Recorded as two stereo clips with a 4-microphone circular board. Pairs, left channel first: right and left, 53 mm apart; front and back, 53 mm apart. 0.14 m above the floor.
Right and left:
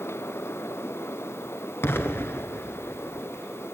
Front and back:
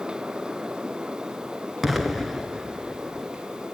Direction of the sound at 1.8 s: 95° right.